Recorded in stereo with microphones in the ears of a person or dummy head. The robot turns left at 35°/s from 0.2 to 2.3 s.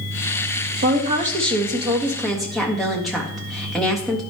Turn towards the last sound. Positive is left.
turn(degrees=175)